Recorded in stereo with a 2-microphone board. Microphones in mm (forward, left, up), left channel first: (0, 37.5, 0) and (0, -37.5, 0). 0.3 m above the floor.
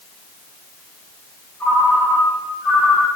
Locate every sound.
1.6 s a ringtone: 25° left (ahead or behind), 8.5 m